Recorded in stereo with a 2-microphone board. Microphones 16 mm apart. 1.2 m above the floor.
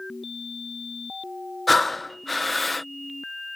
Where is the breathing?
5° left (ahead or behind).